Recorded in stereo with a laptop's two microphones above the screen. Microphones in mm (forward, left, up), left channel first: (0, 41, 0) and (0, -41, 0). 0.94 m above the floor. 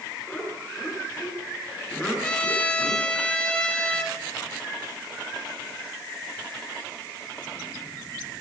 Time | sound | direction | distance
0.3 | laughter | 5° left (ahead or behind) | 9.5 m
2.2 | a trumpet | 15° left (ahead or behind) | 4 m